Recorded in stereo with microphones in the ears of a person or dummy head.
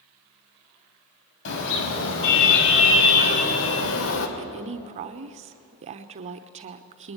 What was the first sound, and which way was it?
A car horn, 70° left (ahead or behind).